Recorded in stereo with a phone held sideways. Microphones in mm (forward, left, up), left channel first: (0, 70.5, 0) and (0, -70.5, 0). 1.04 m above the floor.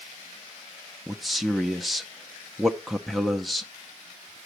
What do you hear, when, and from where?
1.1 s a man speaking: centre (ahead or behind), 0.5 m